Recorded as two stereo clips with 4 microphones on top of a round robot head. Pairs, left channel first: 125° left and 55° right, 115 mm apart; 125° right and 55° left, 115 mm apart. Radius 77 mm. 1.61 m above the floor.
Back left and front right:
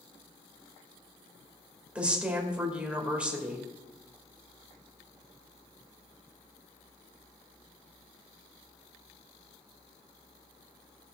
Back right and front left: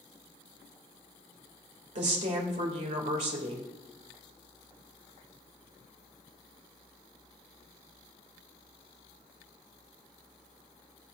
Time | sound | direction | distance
1.9 | a woman speaking | 25° left | 2.5 m